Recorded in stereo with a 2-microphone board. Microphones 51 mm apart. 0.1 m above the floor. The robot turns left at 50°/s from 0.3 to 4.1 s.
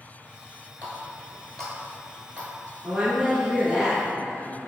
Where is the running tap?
30° left (ahead or behind), 1.0 m; by 2.5 s 15° right (ahead or behind), 1.0 m.